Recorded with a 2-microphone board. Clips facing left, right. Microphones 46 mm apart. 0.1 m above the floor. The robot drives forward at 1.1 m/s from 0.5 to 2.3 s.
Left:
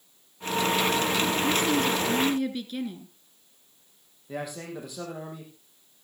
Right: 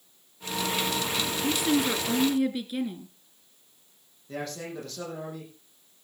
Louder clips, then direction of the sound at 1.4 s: Right 3 dB; 10° right (ahead or behind).